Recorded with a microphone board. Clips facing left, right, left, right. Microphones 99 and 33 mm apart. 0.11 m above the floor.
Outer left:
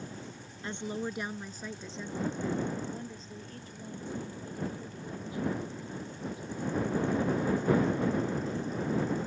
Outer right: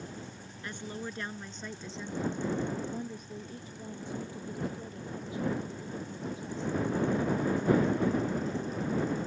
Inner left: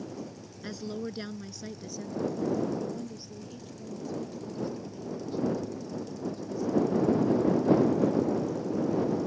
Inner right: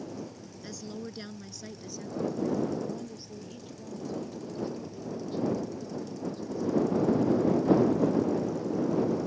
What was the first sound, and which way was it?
A woman speaking, 25° left (ahead or behind).